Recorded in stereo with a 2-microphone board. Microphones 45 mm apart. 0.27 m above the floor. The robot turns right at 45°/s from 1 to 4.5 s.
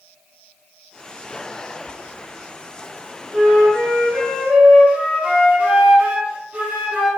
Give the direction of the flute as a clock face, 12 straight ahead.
3 o'clock.